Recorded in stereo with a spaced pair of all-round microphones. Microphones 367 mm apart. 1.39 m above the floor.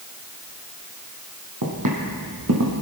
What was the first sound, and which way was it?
Footsteps, 60° right (ahead or behind).